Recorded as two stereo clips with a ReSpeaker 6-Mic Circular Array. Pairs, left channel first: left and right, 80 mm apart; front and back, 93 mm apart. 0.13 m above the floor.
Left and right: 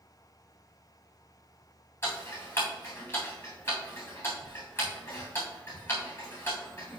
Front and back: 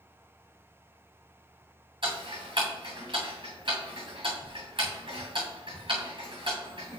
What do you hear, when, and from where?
2.0 s ticking: 150° left, 3 m